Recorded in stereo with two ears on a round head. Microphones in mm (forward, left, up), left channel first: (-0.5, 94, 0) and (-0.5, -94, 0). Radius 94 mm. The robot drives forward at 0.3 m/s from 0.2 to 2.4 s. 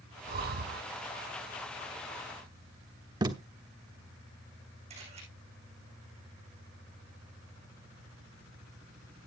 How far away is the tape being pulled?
About 1.0 m.